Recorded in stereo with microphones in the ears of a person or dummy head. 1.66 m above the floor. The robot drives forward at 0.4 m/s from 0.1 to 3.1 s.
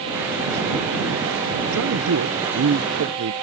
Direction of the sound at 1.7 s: 80° right.